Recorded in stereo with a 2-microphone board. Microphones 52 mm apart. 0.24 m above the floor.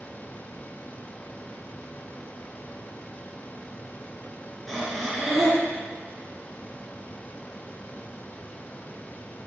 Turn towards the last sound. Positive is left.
turn(degrees=0)  # may be behind; listen again after turning